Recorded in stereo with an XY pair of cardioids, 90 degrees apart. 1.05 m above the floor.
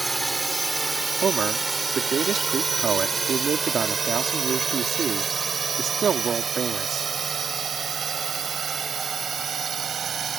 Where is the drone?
10° right; by 10.4 s 50° right.